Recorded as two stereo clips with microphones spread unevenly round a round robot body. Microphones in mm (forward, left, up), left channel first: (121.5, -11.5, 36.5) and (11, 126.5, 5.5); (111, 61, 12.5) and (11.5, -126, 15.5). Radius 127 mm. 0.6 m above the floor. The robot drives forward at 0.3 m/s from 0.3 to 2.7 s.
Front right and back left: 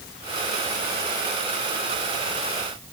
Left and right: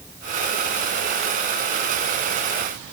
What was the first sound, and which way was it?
Only background noise.